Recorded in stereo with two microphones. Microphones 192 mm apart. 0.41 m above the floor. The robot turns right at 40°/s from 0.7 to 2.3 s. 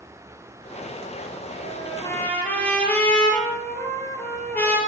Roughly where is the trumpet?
Left.